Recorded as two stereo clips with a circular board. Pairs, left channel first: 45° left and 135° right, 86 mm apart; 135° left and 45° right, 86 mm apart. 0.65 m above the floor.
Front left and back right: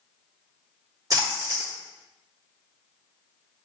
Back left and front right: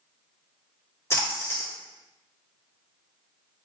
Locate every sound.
1.1 s a splash: 170° right, 1.4 m